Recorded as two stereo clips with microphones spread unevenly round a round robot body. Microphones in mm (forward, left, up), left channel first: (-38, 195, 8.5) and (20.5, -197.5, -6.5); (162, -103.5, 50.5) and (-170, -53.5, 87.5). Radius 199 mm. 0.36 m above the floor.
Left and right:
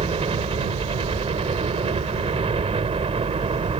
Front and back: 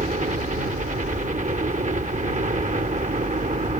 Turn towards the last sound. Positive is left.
turn(degrees=-140)